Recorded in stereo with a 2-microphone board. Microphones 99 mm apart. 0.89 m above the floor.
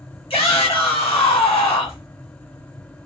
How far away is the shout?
About 1.2 m.